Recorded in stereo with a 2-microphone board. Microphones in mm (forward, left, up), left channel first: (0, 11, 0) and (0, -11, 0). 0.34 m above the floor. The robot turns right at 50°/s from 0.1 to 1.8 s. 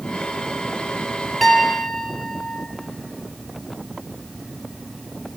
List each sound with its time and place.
1.4 s a piano: 5° left (ahead or behind), 0.7 m; by 2.7 s 25° left (ahead or behind), 0.7 m